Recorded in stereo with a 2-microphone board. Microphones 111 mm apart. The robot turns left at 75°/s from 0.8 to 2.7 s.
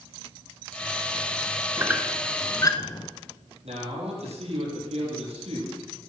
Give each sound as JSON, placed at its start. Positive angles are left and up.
{"t": 1.8, "sound": "a squeak", "side_deg": -30, "distance_m": 1.0}
{"t": 3.6, "sound": "a man speaking", "side_deg": -75, "distance_m": 5.5}